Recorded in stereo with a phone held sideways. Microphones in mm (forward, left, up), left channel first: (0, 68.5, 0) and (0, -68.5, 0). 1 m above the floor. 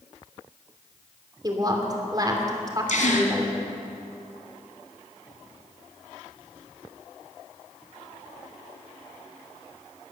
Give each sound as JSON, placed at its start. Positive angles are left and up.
{"t": 1.4, "sound": "a woman speaking", "side_deg": -30, "distance_m": 2.5}
{"t": 2.9, "sound": "a gasp", "side_deg": 65, "distance_m": 1.8}